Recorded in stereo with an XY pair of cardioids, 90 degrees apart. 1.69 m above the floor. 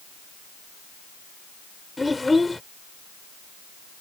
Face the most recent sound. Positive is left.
turn(degrees=15)